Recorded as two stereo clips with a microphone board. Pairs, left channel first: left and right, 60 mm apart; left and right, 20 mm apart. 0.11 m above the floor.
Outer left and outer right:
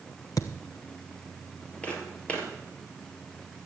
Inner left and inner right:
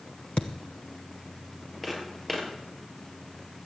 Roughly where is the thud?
Left.